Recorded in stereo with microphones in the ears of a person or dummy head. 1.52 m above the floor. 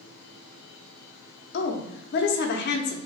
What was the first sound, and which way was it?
A woman speaking, 55° left (ahead or behind).